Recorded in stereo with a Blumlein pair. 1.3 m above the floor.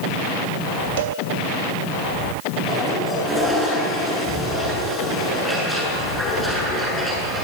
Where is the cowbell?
55° right, 2.5 m.